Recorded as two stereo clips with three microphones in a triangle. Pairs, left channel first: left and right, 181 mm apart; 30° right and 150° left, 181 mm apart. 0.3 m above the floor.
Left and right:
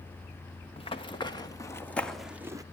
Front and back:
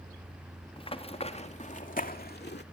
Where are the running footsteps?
30° left, 2 m; by 2.6 s 20° right, 1.1 m.